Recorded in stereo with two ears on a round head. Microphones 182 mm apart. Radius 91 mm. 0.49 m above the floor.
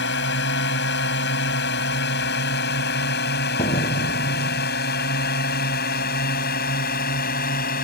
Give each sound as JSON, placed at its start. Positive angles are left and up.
{"t": 0.0, "sound": "a drone", "side_deg": 60}
{"t": 3.6, "sound": "a door slam", "side_deg": 35}